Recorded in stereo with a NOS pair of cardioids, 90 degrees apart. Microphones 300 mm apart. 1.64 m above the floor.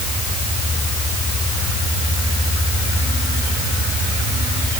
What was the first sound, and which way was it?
Only background noise.